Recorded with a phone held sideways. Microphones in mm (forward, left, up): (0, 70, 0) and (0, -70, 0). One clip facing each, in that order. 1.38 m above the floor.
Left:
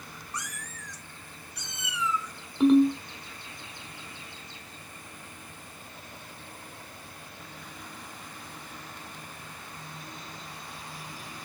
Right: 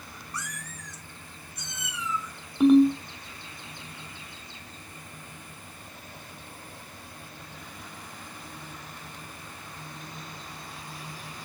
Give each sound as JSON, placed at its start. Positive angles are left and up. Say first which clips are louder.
{"t": 0.3, "sound": "a cat meowing", "louder": "right 1 dB", "side_deg": 20, "distance_m": 0.6}
{"t": 2.6, "sound": "a ringtone", "louder": "right 2 dB", "side_deg": -5, "distance_m": 1.0}